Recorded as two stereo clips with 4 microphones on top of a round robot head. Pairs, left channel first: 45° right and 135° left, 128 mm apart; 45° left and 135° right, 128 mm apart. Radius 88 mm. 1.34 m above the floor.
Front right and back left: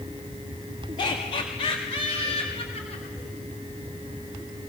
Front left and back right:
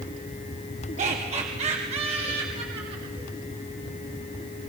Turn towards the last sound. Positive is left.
turn(degrees=-80)